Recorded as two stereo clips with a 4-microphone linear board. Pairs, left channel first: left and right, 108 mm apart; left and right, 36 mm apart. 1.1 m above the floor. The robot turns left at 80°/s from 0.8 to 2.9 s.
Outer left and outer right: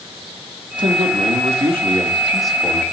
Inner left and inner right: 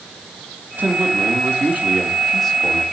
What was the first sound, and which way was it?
A man speaking, 50° right.